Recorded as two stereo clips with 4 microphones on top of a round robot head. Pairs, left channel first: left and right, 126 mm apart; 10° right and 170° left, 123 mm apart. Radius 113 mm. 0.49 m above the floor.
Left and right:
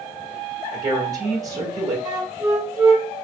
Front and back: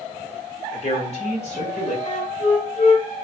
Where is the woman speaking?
30° right, 1.9 m.